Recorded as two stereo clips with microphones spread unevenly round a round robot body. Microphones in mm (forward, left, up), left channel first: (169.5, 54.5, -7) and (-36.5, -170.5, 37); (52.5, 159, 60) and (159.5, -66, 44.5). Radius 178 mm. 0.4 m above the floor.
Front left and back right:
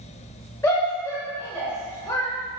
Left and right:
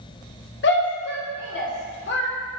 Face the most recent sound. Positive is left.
turn(degrees=115)